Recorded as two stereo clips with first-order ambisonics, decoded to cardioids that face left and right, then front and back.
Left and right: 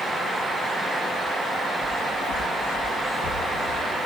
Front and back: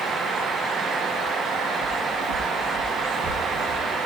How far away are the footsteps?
About 7 m.